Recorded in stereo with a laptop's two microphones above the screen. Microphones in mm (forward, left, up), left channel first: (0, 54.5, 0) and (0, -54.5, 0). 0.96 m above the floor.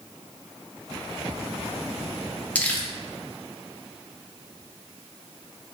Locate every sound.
2.5 s crumpling: 15° left (ahead or behind), 0.6 m